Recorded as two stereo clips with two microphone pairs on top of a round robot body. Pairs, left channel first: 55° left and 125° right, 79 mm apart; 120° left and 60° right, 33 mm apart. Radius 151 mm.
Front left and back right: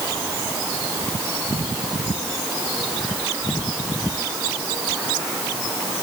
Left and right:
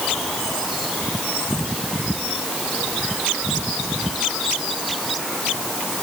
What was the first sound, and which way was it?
Only background noise.